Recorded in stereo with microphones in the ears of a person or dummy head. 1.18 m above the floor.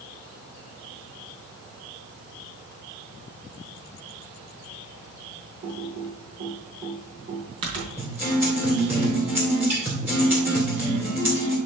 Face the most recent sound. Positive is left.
turn(degrees=-10)  # may be behind; listen again after turning